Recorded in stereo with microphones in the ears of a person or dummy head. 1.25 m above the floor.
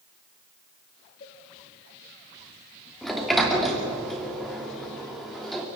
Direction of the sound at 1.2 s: 45° left (ahead or behind).